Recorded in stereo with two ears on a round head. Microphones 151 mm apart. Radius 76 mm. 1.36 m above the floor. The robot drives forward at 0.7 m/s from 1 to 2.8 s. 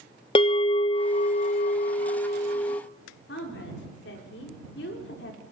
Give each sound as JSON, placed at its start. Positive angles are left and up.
{"t": 0.3, "sound": "a bell", "side_deg": 30, "distance_m": 0.7}
{"t": 3.3, "sound": "a woman speaking", "side_deg": 75, "distance_m": 5.0}